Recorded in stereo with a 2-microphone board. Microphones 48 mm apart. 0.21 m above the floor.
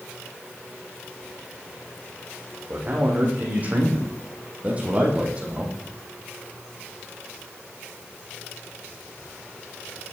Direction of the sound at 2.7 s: 35° right (ahead or behind).